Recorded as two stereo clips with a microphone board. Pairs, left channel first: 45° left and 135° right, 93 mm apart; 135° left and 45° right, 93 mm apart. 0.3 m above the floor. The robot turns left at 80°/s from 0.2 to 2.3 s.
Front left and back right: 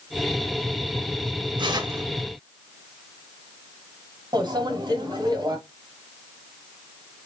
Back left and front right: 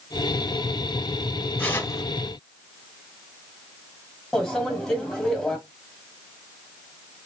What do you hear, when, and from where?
1.6 s tearing paper: 150° right, 1.4 m; by 2.0 s 175° left, 1.4 m
4.3 s a microwave: 145° right, 1.8 m